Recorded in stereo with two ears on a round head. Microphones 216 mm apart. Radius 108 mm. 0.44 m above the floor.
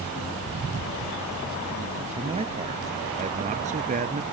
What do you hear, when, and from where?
2.2 s a man speaking: 25° right (ahead or behind); by 4.2 s 35° right (ahead or behind)